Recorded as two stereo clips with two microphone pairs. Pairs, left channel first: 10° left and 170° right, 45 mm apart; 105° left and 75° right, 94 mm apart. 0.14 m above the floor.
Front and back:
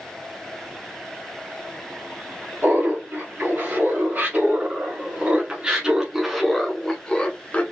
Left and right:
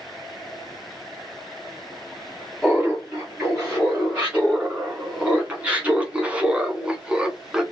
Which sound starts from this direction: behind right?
Laughter, at 2.6 s.